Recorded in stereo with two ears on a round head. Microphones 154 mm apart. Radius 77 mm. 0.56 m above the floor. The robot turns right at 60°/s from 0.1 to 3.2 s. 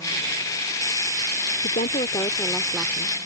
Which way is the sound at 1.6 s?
120° left.